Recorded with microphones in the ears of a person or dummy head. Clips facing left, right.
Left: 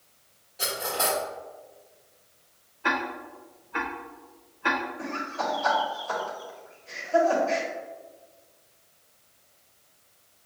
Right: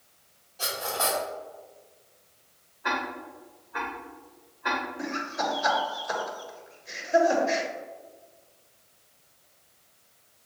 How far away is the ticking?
About 1.0 m.